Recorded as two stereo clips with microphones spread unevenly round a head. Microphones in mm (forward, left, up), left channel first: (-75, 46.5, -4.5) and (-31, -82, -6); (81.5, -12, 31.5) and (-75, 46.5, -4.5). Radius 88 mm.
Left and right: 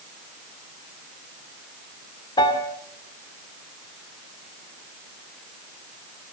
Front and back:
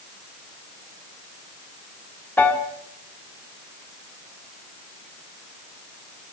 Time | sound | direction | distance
2.4 | a piano | 50° left | 1.8 m